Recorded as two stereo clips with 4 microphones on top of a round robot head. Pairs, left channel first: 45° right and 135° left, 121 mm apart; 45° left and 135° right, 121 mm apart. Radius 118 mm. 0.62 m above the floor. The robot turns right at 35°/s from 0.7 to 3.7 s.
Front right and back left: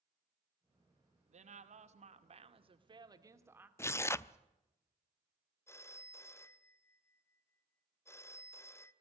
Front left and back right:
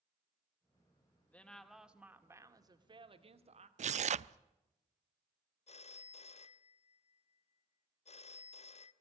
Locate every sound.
1.3 s a woman speaking: 125° left, 2 m; by 3.7 s 150° right, 2 m
3.8 s tearing paper: 115° right, 0.6 m
5.7 s a phone ringing: 20° left, 1.0 m